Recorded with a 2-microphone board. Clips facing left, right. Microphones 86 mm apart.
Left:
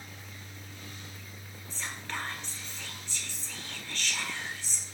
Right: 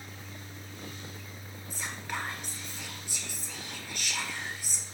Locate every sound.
1.7 s whispering: 15° right (ahead or behind), 1.5 m